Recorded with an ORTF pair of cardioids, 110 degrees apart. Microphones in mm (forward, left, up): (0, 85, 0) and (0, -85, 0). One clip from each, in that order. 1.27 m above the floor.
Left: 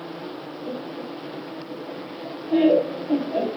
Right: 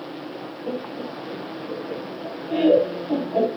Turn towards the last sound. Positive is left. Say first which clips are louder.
# right 3 dB
turn(degrees=-20)